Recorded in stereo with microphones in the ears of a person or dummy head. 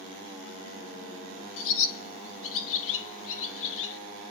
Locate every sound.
1.6 s a bird: 70° left (ahead or behind), 0.8 m